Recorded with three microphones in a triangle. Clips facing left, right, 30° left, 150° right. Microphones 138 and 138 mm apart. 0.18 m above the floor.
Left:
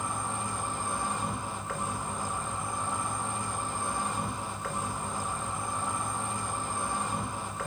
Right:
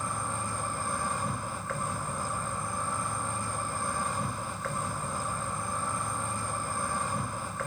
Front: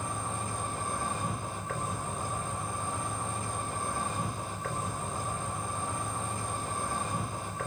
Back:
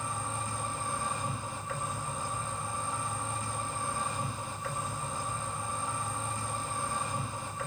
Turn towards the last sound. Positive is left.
turn(degrees=20)